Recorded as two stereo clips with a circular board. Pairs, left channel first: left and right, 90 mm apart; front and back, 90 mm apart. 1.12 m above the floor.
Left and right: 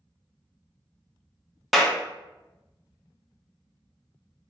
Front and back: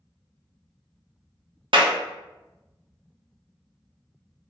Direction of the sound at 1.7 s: 175° right.